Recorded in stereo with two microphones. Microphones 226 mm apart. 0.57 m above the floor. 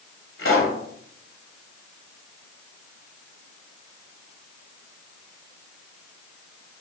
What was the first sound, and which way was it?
A pop, 65° left (ahead or behind).